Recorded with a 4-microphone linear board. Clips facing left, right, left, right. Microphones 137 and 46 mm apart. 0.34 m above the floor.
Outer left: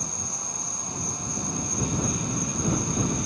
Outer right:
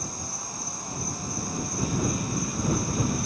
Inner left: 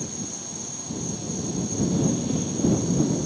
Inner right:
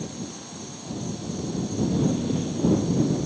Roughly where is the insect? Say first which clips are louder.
Even, even; centre.